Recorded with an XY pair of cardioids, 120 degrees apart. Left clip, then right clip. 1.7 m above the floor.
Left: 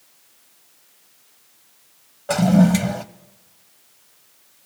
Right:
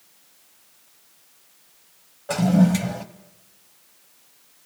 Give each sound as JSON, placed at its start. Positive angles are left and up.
{"t": 2.3, "sound": "a toilet flushing", "azimuth_deg": 20, "distance_m": 0.7}